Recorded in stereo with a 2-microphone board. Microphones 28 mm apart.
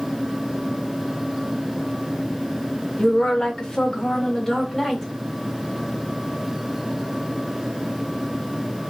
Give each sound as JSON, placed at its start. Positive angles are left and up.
{"t": 3.0, "sound": "a woman speaking", "side_deg": 35, "distance_m": 1.5}